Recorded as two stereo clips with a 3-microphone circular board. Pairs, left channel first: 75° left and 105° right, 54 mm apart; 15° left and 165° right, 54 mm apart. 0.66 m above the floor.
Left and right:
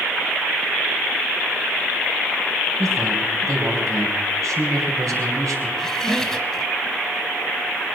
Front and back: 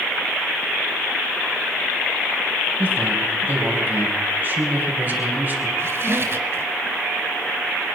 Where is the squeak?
155° left, 1.6 m.